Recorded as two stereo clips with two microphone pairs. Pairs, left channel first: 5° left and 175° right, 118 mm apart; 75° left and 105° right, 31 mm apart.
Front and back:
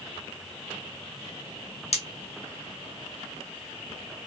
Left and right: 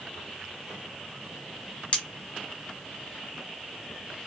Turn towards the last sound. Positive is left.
turn(degrees=25)